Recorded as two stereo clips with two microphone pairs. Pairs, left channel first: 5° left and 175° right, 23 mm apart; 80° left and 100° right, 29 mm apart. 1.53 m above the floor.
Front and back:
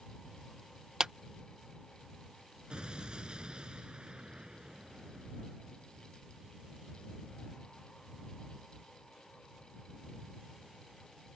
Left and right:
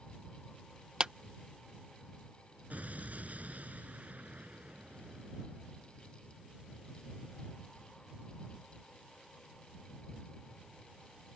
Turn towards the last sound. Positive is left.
turn(degrees=-130)